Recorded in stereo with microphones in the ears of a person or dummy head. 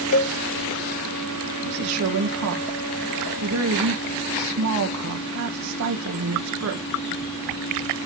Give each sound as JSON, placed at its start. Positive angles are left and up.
{"t": 0.1, "sound": "a cowbell", "side_deg": 75, "distance_m": 1.2}
{"t": 1.6, "sound": "a woman speaking", "side_deg": -85, "distance_m": 1.7}